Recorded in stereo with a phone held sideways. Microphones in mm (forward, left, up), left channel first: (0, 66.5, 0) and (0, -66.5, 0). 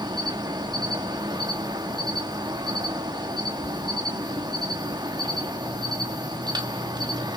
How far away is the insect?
About 1.9 m.